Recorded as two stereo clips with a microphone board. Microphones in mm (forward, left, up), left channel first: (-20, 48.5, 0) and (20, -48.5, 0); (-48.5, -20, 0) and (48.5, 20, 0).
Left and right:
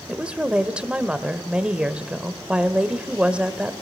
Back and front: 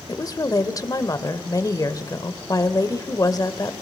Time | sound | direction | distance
0.1 | a woman speaking | 140° right | 1.0 m